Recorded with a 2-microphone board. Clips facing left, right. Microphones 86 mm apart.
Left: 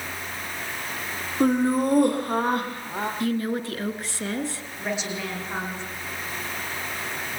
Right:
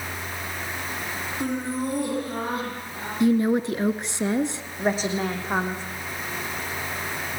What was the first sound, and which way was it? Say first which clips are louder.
Laughter: left 8 dB; 50° left (ahead or behind).